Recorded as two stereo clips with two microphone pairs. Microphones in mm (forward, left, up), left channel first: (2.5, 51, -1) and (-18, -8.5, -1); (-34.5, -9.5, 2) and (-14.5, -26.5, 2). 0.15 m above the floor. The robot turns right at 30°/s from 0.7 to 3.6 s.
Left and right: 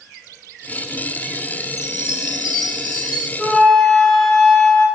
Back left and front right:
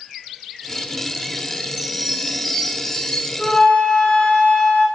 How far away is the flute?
About 1.5 m.